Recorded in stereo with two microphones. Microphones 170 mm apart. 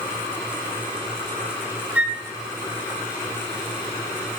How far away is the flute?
About 0.7 m.